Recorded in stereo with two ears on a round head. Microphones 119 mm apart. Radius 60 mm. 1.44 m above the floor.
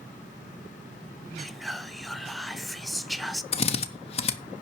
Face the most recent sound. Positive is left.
turn(degrees=50)  # may be behind; listen again after turning